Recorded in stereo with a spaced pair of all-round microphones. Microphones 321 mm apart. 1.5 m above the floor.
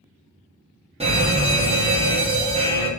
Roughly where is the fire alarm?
Centre.